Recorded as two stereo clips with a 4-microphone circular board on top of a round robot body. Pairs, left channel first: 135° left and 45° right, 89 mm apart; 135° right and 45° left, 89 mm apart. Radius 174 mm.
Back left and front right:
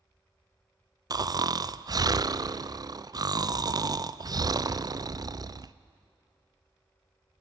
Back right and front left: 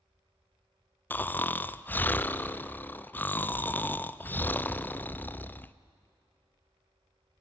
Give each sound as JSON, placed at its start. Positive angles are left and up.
{"t": 1.1, "sound": "snoring", "azimuth_deg": -70, "distance_m": 0.6}